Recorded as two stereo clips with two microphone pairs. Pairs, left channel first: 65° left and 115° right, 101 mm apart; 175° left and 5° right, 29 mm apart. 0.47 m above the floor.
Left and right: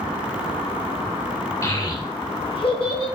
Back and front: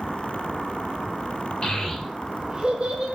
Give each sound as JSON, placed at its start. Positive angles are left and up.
{"t": 1.6, "sound": "a child speaking", "azimuth_deg": 125, "distance_m": 0.7}